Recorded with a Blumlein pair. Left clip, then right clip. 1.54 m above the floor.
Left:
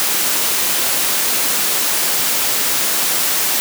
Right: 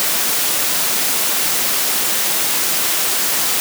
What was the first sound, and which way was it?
Only background noise.